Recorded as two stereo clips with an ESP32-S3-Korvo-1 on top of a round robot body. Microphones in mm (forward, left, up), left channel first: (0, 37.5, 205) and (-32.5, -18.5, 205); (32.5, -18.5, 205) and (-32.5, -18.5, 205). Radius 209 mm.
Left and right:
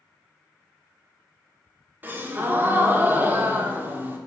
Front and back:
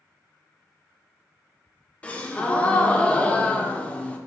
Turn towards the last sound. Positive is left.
turn(degrees=-65)